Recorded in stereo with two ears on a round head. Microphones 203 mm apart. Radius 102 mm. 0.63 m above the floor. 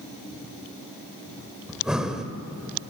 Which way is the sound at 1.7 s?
5° right (ahead or behind).